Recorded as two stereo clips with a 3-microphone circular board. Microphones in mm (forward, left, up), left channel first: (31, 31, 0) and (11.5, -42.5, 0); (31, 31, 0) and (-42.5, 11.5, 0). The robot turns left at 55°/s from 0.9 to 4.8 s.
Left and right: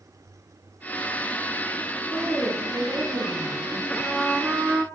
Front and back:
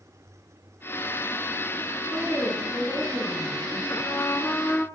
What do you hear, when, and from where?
2.1 s a woman speaking: 5° right, 4.5 m; by 3.8 s 95° right, 4.5 m
3.9 s a trumpet: straight ahead, 0.5 m; by 4.9 s 50° right, 0.5 m